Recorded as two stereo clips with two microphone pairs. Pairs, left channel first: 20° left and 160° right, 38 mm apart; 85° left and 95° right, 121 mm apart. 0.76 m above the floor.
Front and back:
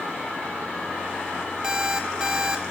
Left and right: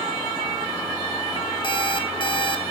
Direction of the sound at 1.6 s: 135° left.